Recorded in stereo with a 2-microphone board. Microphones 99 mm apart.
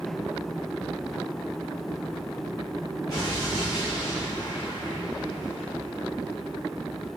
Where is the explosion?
40° left (ahead or behind), 2.5 m.